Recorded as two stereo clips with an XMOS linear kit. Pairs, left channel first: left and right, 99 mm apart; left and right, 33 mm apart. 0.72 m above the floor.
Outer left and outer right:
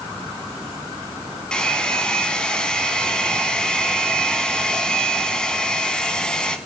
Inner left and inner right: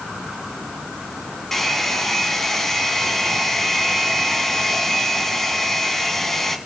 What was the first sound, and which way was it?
A hair dryer, 10° left (ahead or behind).